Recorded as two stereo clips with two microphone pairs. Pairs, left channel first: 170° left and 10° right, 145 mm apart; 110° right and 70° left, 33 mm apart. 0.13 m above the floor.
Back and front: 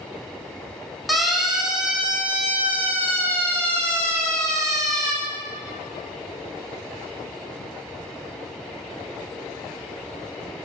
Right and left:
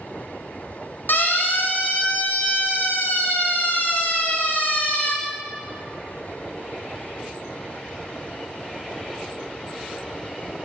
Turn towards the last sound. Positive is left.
turn(degrees=-80)